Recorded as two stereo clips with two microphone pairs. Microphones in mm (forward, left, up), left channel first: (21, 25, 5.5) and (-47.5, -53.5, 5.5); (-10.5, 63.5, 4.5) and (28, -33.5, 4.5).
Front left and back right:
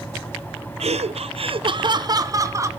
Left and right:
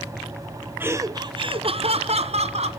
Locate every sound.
0.8 s laughter: 140° right, 0.8 m; by 2.7 s 70° right, 1.5 m